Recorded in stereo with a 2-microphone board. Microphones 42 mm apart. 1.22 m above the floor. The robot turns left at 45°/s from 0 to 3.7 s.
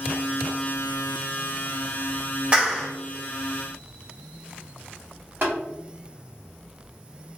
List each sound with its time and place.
2.5 s a clap: 30° right (ahead or behind), 1.2 m; by 2.9 s 45° right (ahead or behind), 1.2 m
5.4 s tapping: 50° right (ahead or behind), 1.5 m